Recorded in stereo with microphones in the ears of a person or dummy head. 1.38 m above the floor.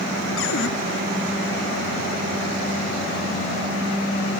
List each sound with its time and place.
0.4 s a cupboard door: 80° left